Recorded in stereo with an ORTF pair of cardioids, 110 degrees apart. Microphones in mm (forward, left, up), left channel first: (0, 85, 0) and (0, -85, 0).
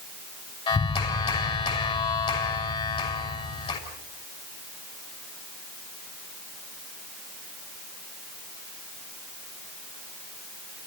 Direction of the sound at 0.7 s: 30° left.